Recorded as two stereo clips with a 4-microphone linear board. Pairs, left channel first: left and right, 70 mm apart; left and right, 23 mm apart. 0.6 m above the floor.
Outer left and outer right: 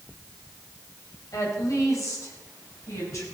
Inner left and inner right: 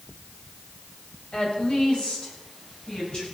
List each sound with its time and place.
1.3 s a woman speaking: 55° left (ahead or behind), 3.5 m; by 3.2 s 50° left (ahead or behind), 5 m